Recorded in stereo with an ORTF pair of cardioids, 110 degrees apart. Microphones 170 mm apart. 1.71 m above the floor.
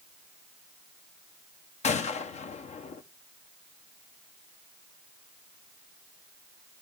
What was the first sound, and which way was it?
A gunshot, 45° left.